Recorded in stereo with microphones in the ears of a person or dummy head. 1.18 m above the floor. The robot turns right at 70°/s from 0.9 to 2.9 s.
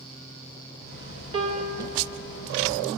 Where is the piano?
150° right, 1.0 m; by 2.0 s 105° right, 1.0 m.